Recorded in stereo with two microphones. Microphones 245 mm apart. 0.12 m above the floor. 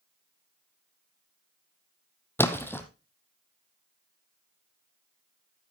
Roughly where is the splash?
Centre.